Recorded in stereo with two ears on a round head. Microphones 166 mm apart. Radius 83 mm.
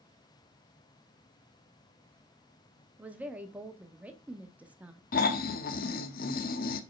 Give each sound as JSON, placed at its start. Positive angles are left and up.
{"t": 3.0, "sound": "a woman speaking", "side_deg": -10, "distance_m": 1.0}
{"t": 5.1, "sound": "snoring", "side_deg": 50, "distance_m": 0.8}